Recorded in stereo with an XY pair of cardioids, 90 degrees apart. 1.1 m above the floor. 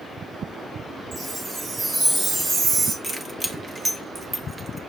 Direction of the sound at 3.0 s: 20° right.